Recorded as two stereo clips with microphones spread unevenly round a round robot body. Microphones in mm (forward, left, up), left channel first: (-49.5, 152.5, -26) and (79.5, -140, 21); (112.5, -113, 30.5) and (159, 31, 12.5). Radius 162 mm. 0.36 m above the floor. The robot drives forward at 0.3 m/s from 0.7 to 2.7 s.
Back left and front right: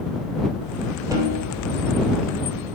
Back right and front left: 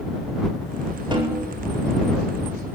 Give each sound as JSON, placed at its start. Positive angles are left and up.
{"t": 1.1, "sound": "a snare drum", "azimuth_deg": 15, "distance_m": 9.5}